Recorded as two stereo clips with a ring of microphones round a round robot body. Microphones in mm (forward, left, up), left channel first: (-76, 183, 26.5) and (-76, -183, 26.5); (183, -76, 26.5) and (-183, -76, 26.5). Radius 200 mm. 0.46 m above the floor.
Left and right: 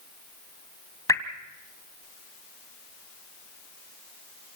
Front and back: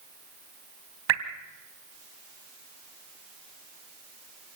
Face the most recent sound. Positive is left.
turn(degrees=170)